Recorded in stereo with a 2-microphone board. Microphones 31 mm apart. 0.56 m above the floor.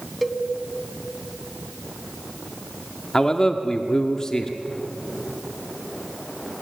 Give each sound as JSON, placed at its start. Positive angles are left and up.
{"t": 0.2, "sound": "a cowbell", "side_deg": 5, "distance_m": 1.1}
{"t": 3.1, "sound": "a man speaking", "side_deg": 20, "distance_m": 1.2}